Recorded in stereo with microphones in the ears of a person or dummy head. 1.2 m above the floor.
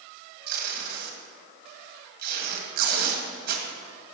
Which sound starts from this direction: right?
Tape being pulled, at 0.5 s.